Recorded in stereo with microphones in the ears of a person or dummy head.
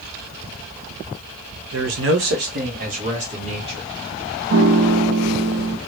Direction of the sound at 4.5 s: 75° right (ahead or behind).